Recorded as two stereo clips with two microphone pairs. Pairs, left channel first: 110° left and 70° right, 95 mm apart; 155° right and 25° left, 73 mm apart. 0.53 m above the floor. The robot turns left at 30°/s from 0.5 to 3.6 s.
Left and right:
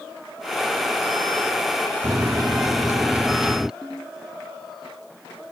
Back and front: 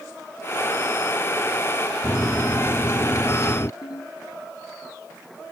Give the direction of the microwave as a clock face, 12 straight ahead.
3 o'clock.